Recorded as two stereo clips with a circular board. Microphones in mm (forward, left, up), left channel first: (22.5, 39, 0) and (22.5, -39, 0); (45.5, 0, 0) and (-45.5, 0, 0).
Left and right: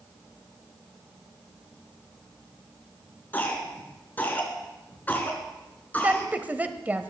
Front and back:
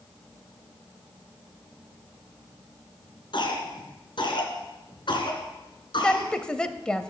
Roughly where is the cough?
Ahead left.